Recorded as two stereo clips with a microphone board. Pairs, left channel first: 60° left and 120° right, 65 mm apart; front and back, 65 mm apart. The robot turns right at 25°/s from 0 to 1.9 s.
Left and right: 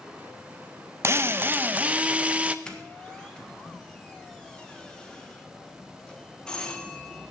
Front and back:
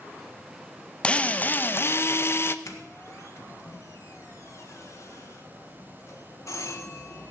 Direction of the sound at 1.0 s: 70° right.